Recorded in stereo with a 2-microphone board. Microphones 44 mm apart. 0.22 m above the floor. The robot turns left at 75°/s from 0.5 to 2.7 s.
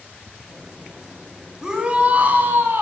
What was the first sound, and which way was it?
A shout, 15° right.